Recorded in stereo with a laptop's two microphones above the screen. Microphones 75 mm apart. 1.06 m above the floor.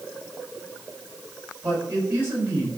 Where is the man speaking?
30° right (ahead or behind), 6 m.